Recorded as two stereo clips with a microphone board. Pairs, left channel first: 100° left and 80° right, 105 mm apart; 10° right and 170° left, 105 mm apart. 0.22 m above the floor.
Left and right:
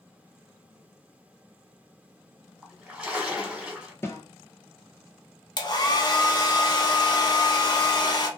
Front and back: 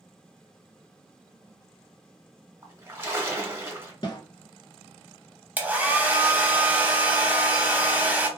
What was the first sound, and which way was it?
A splash, 150° right.